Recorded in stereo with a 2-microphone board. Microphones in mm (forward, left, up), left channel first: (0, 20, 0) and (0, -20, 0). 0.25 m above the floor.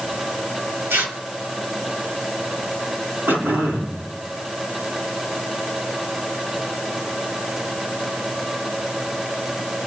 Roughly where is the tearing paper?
Right.